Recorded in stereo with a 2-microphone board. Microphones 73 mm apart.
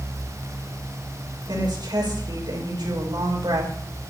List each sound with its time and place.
1.5 s a woman speaking: 70° right (ahead or behind), 5.5 m